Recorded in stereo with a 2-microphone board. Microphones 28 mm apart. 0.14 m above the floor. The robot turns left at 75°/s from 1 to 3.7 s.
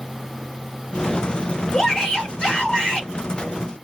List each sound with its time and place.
1.7 s a shout: 155° left, 1.4 m; by 3.1 s 50° left, 1.4 m